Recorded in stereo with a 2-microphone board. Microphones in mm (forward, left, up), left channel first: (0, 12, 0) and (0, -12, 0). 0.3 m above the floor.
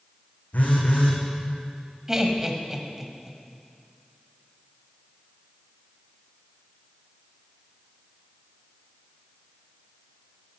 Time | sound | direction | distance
0.5 | a phone buzzing | 85° left | 3 m
2.1 | laughter | 20° right (ahead or behind) | 1.5 m